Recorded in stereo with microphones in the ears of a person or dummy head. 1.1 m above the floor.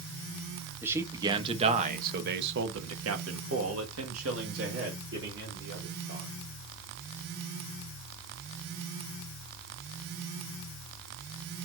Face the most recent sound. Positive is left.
turn(degrees=-60)  # may be behind; listen again after turning